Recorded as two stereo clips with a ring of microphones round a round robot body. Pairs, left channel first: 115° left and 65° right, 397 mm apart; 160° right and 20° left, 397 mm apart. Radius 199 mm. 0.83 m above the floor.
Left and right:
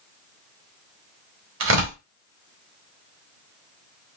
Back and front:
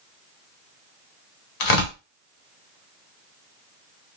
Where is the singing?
No singing in this recording.